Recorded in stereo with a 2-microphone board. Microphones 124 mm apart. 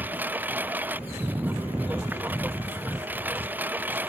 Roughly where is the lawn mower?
Centre.